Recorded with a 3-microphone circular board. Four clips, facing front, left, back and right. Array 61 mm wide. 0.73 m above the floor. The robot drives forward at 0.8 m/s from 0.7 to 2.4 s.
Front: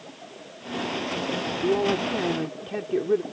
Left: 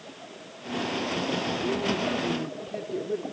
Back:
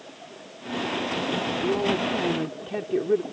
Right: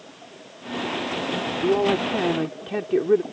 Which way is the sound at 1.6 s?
70° right.